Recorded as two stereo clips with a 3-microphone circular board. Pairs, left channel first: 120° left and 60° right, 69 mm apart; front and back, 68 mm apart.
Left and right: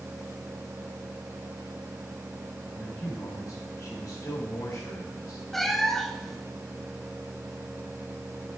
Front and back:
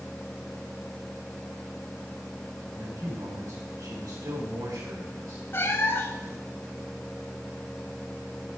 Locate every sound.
2.7 s a man speaking: 150° left, 5 m
5.5 s a cat meowing: 35° left, 1.0 m